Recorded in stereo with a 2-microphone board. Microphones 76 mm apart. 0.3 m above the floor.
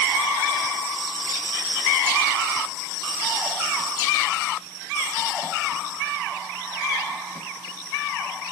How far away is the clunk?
I don't hear a clunk.